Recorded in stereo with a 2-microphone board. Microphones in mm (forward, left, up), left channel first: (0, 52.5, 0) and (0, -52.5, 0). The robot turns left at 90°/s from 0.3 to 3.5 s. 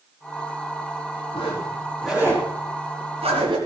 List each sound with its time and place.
1.3 s a zipper: 60° left (ahead or behind), 5 m; by 3.6 s 50° right (ahead or behind), 5 m